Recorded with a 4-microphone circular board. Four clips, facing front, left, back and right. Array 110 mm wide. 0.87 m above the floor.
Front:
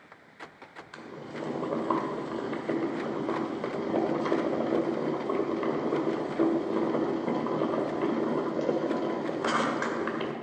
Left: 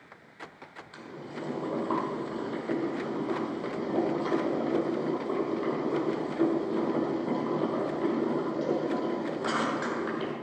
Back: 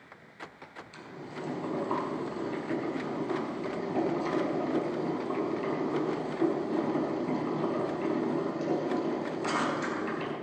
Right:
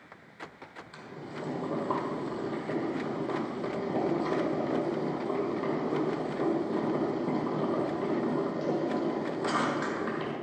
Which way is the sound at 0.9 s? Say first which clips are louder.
Left 1 dB, front 3 dB; 5° right.